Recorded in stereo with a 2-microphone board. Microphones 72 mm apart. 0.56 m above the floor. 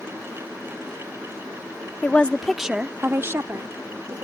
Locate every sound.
2.0 s a woman speaking: 25° left (ahead or behind); by 4.2 s 60° right (ahead or behind)